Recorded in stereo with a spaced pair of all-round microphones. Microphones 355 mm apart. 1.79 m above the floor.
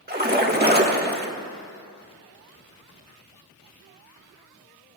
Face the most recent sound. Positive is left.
turn(degrees=-25)  # may be behind; listen again after turning